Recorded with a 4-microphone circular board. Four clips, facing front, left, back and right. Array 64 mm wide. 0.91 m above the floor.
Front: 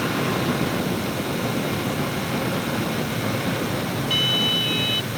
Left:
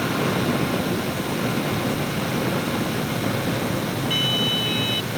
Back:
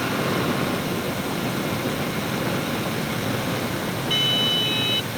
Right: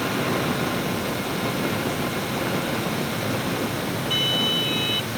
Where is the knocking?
I don't hear knocking.